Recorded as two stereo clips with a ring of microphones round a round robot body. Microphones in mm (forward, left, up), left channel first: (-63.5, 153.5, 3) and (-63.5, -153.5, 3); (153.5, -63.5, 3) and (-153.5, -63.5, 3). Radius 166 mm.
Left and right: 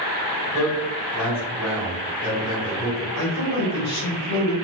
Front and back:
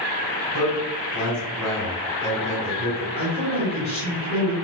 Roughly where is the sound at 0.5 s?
Ahead.